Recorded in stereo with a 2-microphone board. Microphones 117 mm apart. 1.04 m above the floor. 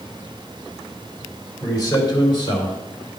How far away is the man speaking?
About 3 m.